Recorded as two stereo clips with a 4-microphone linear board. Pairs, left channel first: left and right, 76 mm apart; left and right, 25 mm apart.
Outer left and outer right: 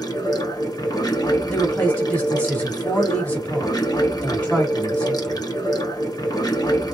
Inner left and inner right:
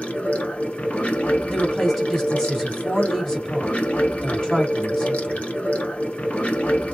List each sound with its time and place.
0.0 s running water: 60° left (ahead or behind), 0.9 m
1.5 s a woman speaking: 20° left (ahead or behind), 1.2 m